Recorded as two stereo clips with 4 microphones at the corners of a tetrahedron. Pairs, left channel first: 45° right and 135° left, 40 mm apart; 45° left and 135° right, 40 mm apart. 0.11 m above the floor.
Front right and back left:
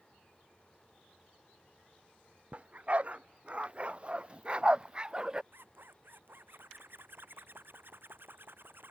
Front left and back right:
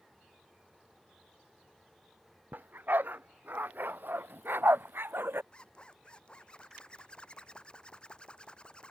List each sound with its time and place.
2.5 s a dog barking: 170° right; by 5.4 s 155° right
5.5 s a zipper: 110° left